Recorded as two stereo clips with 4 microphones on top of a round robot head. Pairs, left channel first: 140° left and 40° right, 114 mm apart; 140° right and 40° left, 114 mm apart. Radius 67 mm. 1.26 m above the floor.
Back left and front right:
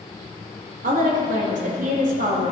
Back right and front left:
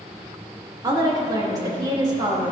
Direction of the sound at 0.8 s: 20° right.